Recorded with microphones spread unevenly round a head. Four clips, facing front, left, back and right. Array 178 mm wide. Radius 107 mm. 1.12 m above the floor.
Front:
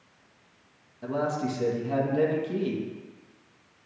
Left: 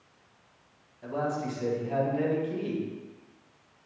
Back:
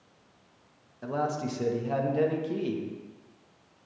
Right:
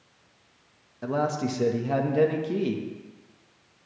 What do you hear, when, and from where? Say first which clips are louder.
1.0 s a man speaking: right 4 dB, front 2 dB; 75° right, 1.4 m